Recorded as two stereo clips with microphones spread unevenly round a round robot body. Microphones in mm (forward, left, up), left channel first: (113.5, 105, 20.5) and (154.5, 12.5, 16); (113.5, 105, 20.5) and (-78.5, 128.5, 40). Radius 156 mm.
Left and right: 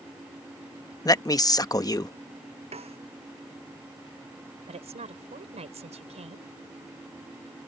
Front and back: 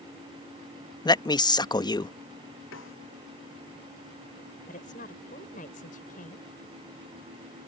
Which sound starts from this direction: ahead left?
A man speaking, at 1.1 s.